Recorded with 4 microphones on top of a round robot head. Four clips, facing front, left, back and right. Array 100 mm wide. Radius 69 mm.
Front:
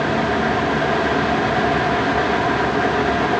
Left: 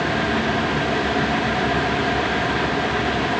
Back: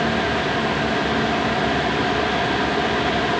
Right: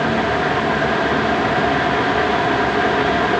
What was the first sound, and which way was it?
Only background noise.